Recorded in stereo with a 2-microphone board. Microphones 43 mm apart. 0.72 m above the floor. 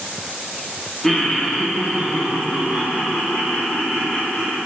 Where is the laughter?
10° left (ahead or behind), 0.6 m; by 4.6 s centre (ahead or behind), 2.5 m.